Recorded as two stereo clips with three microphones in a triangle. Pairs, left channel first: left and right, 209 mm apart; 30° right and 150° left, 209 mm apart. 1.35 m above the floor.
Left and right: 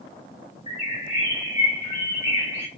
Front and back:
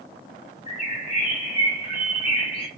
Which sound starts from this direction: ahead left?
A bird, at 0.7 s.